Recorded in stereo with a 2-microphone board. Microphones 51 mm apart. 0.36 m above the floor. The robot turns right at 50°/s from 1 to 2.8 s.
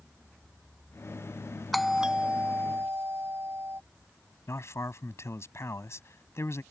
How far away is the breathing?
No breathing in this recording.